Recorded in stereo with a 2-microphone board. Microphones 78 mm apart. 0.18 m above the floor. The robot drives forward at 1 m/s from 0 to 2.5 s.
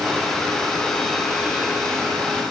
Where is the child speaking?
No child speaking in this recording.